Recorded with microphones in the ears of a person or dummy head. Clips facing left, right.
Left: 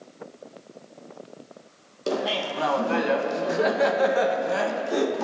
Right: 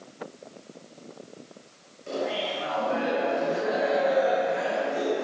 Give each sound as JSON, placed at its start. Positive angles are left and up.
{"t": 2.1, "sound": "laughter", "side_deg": 80, "distance_m": 1.1}